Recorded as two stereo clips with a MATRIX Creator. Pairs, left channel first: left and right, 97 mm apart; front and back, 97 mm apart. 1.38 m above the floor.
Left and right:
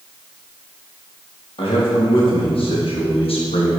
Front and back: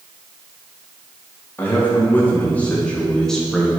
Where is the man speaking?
65° left, 2.5 m; by 3.8 s 95° left, 1.2 m.